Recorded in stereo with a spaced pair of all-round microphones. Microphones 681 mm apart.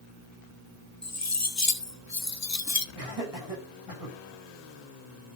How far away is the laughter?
About 8.5 m.